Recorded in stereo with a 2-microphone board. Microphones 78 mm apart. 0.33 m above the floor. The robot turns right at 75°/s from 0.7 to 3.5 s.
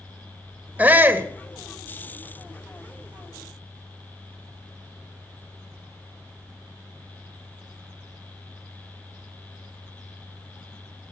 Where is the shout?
20° right (ahead or behind), 1.1 m; by 1.3 s 25° right (ahead or behind), 1.1 m.